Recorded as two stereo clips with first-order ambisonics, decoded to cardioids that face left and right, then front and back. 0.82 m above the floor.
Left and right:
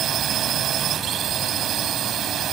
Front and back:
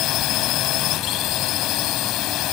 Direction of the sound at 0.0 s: 40° right.